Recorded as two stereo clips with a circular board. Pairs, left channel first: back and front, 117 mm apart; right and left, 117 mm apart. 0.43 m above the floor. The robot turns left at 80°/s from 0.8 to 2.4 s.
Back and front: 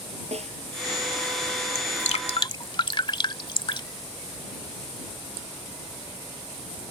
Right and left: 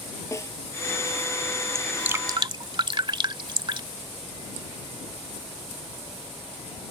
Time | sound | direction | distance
0.3 | a snare drum | 25° right | ?
1.8 | dripping | 175° right | ?